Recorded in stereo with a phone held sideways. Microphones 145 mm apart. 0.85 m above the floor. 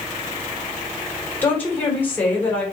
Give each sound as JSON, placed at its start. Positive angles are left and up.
{"t": 1.4, "sound": "a woman speaking", "side_deg": 10, "distance_m": 2.5}